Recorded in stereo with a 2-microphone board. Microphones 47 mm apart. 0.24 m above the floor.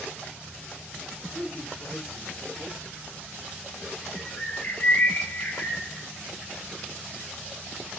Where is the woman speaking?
10° left (ahead or behind), 5 m.